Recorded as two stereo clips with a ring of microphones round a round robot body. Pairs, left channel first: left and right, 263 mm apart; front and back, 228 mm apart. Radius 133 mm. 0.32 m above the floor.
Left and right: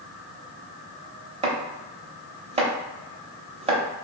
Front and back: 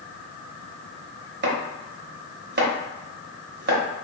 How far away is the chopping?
About 0.7 m.